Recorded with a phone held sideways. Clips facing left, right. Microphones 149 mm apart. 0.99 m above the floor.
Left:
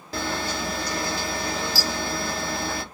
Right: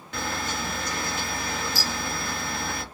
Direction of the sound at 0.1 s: 35° left (ahead or behind).